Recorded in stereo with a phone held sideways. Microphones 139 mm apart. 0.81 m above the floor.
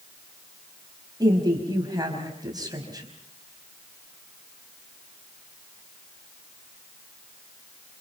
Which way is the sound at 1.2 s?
30° right (ahead or behind).